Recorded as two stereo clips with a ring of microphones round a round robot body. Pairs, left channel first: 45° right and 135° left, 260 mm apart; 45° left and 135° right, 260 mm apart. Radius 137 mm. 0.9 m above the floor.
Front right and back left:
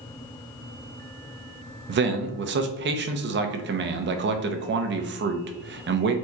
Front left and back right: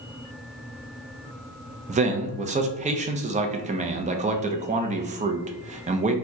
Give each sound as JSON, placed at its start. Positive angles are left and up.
{"t": 1.9, "sound": "a man speaking", "azimuth_deg": 170, "distance_m": 0.6}